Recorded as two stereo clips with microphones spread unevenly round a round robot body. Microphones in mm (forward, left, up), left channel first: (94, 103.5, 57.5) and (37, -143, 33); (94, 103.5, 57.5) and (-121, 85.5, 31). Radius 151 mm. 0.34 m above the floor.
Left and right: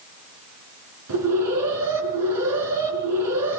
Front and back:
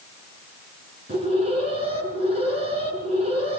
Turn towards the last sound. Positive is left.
turn(degrees=-110)